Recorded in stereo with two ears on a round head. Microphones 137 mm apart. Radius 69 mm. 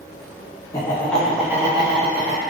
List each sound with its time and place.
0.7 s laughter: 20° left (ahead or behind), 1.0 m; by 2.4 s 55° right (ahead or behind), 0.9 m